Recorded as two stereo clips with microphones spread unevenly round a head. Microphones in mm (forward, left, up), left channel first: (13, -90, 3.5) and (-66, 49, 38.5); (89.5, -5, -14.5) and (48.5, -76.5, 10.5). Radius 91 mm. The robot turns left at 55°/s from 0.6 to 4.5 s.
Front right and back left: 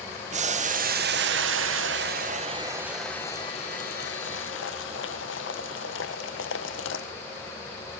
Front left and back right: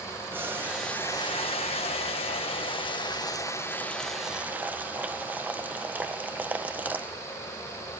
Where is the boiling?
165° left, 1.0 m; by 7.1 s 50° right, 1.0 m.